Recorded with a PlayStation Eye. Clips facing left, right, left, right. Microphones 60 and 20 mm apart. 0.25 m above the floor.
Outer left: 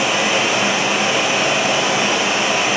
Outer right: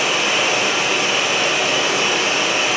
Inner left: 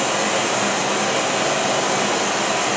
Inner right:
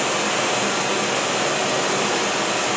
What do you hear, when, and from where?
0.0 s running water: 70° left (ahead or behind), 3.5 m